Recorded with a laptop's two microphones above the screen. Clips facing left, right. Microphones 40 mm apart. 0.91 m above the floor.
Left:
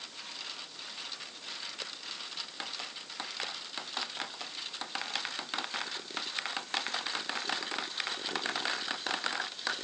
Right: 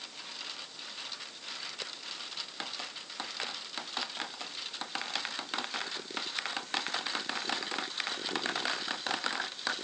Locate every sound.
Only background noise.